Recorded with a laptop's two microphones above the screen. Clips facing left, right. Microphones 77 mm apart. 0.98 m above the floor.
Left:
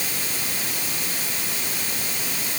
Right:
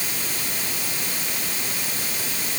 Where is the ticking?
I don't hear ticking.